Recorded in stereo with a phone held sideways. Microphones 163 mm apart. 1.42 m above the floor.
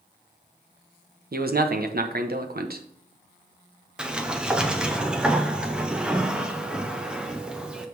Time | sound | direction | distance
1.3 | a man speaking | 70° right (ahead or behind) | 0.8 m
4.0 | a sliding door | 5° right (ahead or behind) | 0.7 m